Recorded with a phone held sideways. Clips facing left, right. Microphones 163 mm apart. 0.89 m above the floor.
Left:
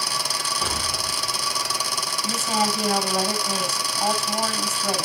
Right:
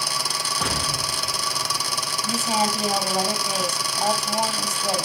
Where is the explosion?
75° right (ahead or behind), 7 m.